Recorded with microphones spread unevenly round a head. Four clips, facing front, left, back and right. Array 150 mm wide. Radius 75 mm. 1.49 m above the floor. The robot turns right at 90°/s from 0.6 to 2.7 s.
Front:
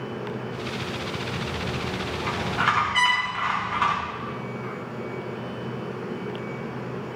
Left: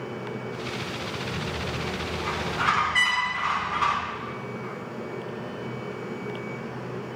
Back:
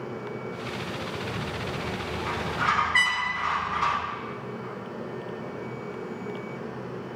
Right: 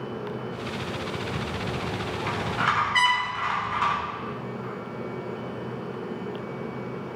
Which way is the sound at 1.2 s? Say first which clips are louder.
Right 1 dB, front 2 dB; 135° right.